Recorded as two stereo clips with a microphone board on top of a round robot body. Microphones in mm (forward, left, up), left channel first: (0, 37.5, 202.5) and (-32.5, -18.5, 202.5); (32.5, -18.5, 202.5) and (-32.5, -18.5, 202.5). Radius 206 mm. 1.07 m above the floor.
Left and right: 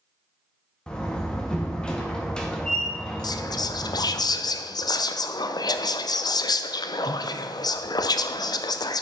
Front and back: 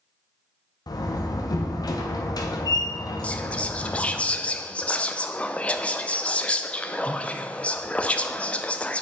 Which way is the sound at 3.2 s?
70° left.